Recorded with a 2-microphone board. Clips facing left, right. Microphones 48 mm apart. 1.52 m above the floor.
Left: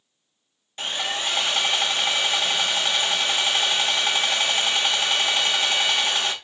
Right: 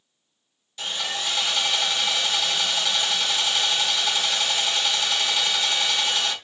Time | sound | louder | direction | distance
0.8 | sawing | left 2 dB | 35° left (ahead or behind) | 0.7 m